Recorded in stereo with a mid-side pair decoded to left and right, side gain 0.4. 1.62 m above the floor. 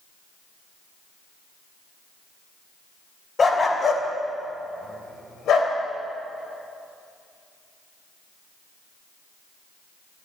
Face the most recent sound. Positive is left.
turn(degrees=80)